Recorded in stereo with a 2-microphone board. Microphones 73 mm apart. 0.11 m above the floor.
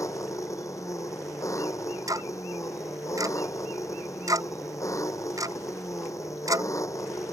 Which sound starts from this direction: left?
An engine running, at 0.0 s.